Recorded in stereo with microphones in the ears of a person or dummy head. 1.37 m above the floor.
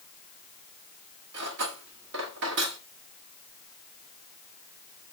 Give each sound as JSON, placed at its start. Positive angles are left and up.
{"t": 1.3, "sound": "cutlery clinking", "side_deg": -60, "distance_m": 1.2}